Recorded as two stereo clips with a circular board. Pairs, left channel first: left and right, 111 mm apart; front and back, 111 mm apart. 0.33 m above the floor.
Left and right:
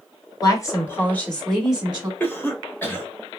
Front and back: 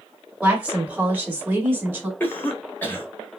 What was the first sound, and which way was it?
A woman speaking, 110° left.